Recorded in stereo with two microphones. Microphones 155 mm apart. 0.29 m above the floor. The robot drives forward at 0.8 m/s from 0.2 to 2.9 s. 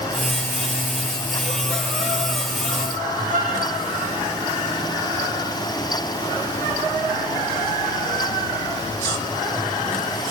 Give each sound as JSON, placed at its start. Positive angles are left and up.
{"t": 3.3, "sound": "a violin", "side_deg": -55, "distance_m": 7.0}